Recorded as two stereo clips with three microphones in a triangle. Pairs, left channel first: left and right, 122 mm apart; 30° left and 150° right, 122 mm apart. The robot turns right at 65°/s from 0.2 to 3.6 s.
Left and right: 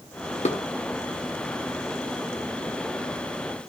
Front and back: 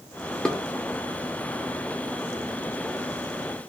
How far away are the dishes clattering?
About 1.8 m.